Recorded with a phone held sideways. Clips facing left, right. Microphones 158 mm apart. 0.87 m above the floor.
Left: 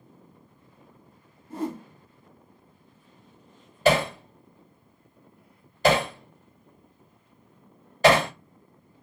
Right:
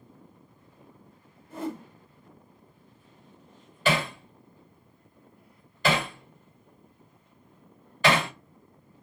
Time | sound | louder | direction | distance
1.5 | a whoosh | left 3 dB | 35° left (ahead or behind) | 1.7 m
3.9 | hammering | left 6 dB | 40° left (ahead or behind) | 1.4 m